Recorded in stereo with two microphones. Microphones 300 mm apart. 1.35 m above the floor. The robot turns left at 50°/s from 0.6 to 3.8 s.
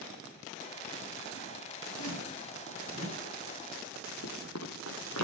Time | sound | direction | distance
1.9 | a zipper | 75° right | 5.5 m
4.2 | running footsteps | 55° left (ahead or behind) | 2.5 m